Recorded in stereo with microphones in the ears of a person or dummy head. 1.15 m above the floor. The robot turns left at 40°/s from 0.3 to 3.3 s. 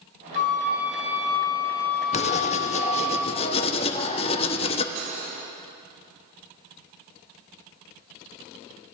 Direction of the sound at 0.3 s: 70° left.